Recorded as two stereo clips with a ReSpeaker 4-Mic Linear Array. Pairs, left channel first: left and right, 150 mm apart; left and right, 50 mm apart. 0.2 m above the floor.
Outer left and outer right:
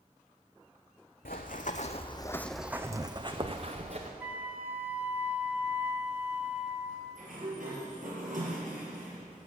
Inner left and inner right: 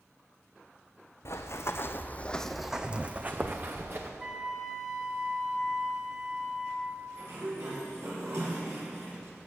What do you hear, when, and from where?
1.2 s running footsteps: 75° left (ahead or behind), 1.0 m; by 4.1 s 50° right (ahead or behind), 1.5 m
4.2 s a flute: 10° right (ahead or behind), 0.9 m
7.2 s a sliding door: 65° right (ahead or behind), 4.5 m